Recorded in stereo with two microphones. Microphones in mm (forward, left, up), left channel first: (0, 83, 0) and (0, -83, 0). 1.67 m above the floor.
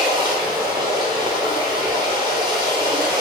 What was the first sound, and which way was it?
Running water, 25° right (ahead or behind).